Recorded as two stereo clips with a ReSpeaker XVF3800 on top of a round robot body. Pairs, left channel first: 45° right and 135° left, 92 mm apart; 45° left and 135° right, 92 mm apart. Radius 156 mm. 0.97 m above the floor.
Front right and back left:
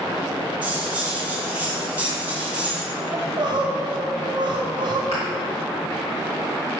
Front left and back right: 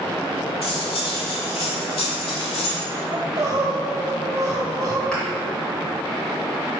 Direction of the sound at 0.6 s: 60° left.